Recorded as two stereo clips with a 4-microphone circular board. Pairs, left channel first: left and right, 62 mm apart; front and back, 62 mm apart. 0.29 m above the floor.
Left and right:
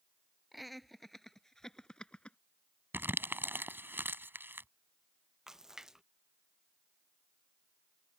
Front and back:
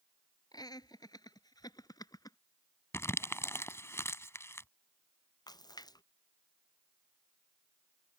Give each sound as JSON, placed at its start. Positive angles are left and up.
{"t": 0.5, "sound": "laughter", "azimuth_deg": -5}
{"t": 2.9, "sound": "crumpling", "azimuth_deg": -40}
{"t": 5.5, "sound": "a splash", "azimuth_deg": -10}